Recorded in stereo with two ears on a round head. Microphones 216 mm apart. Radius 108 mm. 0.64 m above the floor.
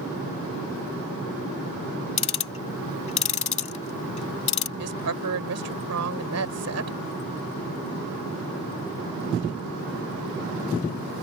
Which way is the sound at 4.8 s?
75° right (ahead or behind).